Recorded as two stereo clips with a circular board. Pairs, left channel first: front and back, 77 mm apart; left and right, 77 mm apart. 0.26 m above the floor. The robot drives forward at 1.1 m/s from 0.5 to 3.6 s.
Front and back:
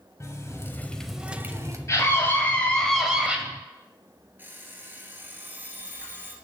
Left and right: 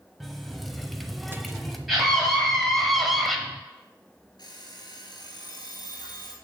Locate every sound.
0.2 s a running tap: straight ahead, 1.0 m; by 1.8 s straight behind, 1.1 m
1.9 s a scream: straight ahead, 1.8 m; by 3.4 s 175° right, 1.4 m
4.4 s an alarm clock: 115° left, 2.5 m